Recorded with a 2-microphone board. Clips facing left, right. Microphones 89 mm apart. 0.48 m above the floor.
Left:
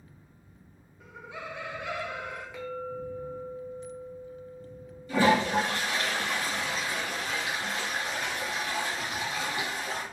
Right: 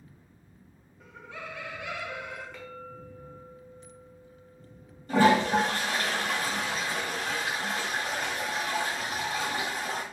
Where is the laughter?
Centre (ahead or behind), 0.9 m; by 2.4 s 45° left (ahead or behind), 1.1 m.